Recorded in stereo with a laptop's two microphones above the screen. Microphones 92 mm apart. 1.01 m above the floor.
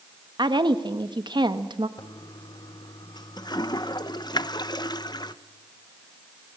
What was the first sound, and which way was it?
A woman speaking, 55° right (ahead or behind).